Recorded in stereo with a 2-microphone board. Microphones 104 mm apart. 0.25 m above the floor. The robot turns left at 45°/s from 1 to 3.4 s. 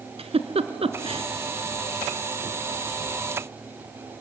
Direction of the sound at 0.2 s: 70° right (ahead or behind).